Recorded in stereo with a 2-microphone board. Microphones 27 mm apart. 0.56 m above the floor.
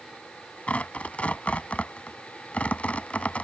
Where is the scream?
No scream in this recording.